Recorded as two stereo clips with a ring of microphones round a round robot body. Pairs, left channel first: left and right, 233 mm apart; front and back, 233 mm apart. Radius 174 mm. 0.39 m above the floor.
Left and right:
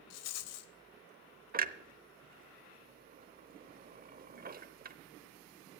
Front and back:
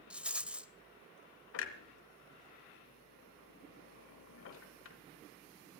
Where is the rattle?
95° left, 0.7 m.